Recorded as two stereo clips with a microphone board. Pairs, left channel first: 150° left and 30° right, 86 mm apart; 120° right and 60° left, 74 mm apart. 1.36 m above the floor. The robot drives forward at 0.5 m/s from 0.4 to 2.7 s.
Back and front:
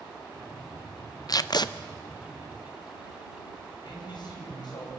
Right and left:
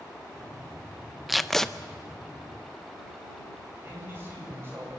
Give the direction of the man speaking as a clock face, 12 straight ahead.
8 o'clock.